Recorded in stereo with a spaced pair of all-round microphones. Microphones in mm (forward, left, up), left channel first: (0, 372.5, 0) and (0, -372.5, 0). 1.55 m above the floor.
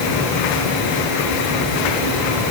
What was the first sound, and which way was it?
Only background noise.